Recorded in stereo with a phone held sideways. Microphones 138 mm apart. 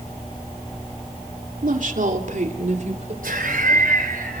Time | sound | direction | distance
1.6 | a woman speaking | 70° right (ahead or behind) | 2.5 m
3.2 | laughter | 80° right | 4 m